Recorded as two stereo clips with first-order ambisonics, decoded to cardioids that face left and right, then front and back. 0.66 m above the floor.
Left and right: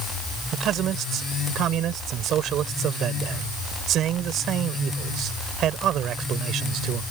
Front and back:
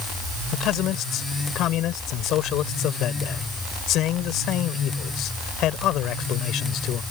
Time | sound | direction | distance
0.5 | a man speaking | 40° right | ?